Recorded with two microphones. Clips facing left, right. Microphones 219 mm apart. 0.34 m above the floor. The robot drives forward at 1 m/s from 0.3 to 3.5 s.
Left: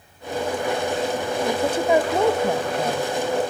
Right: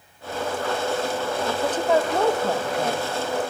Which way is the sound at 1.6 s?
10° left (ahead or behind).